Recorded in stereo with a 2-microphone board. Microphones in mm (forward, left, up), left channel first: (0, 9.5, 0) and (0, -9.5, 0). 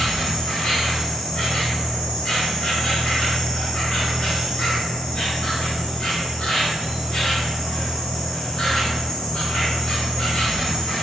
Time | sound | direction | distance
0.0 | an insect | 60° left (ahead or behind) | 1.0 m